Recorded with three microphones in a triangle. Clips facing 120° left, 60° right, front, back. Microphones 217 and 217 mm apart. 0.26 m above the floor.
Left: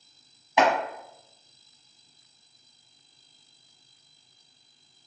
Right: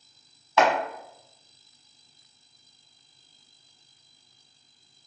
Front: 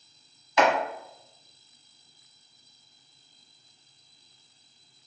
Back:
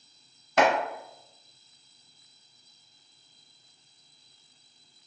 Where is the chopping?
175° right, 0.9 m.